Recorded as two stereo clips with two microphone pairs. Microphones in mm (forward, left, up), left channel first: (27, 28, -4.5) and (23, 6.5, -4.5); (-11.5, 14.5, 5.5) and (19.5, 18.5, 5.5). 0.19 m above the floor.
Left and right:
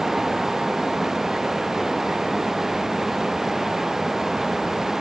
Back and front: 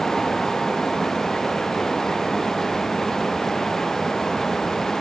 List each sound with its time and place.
Only background noise.